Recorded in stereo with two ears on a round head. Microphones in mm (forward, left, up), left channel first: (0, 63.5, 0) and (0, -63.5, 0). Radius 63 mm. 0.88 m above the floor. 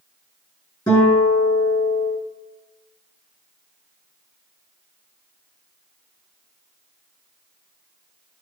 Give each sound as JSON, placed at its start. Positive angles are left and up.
{"t": 0.9, "sound": "a guitar", "side_deg": 25, "distance_m": 6.0}